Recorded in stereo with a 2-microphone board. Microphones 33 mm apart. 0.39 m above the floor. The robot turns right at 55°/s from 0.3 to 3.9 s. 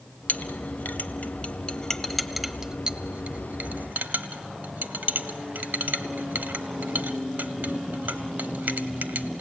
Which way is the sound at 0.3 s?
60° left (ahead or behind).